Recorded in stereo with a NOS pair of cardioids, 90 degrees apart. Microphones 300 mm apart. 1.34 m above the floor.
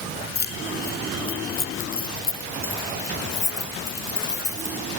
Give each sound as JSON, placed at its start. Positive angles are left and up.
{"t": 0.3, "sound": "keys jangling", "azimuth_deg": 30}